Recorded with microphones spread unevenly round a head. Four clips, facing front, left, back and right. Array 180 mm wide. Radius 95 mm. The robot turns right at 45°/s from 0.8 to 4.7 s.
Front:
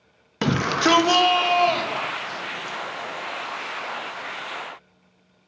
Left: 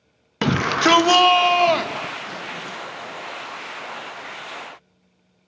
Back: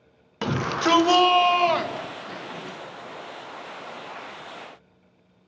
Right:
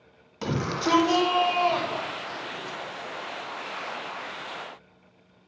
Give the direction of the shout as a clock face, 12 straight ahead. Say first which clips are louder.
Left 8 dB, front 3 dB; 10 o'clock.